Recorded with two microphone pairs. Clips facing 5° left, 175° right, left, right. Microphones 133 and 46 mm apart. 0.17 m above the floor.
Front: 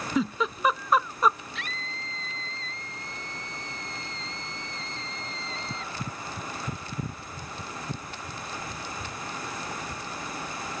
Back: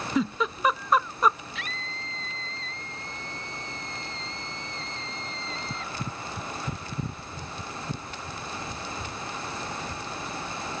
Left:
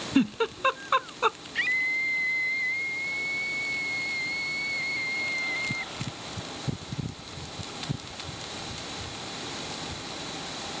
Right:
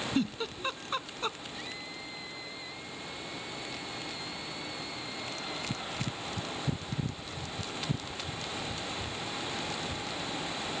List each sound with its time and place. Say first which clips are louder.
0.1 s a giggle: even, left 10 dB; 95° left
1.6 s a scream: even, left 16 dB; 95° left